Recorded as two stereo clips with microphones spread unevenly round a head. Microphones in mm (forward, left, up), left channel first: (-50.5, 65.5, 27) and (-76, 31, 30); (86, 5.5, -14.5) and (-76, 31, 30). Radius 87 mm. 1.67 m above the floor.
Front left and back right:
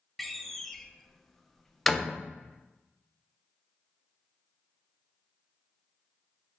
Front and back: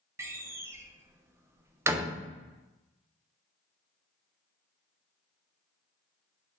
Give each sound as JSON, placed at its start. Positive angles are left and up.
{"t": 0.2, "sound": "a door slam", "azimuth_deg": 135, "distance_m": 0.6}